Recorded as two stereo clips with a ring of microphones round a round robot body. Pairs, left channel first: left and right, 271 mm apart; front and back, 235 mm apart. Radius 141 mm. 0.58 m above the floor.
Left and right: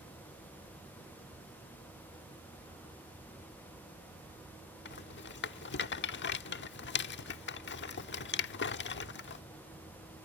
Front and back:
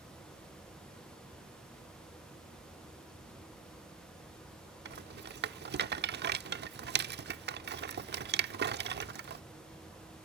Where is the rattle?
135° left.